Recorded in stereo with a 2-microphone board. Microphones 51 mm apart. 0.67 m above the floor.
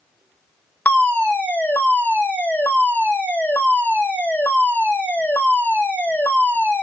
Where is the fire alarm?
35° left (ahead or behind), 1.8 m.